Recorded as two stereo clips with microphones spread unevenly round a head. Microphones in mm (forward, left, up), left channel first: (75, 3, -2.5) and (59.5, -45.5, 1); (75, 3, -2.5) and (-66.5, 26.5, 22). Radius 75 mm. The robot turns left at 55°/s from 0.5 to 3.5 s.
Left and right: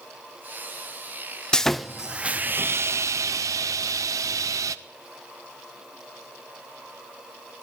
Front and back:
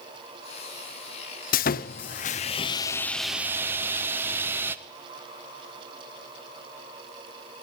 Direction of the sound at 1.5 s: Straight ahead.